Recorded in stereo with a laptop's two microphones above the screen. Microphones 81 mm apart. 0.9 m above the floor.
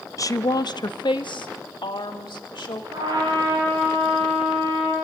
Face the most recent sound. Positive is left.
turn(degrees=-75)  # may be behind; listen again after turning